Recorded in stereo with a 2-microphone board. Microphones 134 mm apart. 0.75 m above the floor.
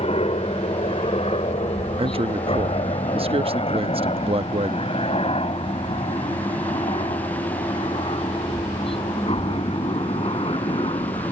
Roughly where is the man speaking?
Right.